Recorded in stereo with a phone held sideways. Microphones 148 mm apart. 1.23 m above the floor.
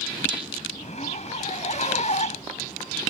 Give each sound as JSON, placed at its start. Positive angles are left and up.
{"t": 0.8, "sound": "a zipper", "side_deg": 50}